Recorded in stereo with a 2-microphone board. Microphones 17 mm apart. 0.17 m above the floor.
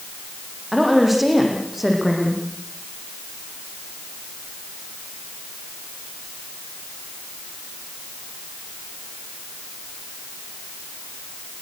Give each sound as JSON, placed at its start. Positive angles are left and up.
{"t": 0.7, "sound": "a woman speaking", "side_deg": -5, "distance_m": 9.5}